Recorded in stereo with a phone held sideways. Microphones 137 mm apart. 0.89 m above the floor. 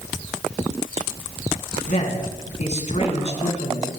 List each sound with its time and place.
1.9 s a man speaking: 60° left (ahead or behind), 7 m; by 3.9 s 50° left (ahead or behind), 7 m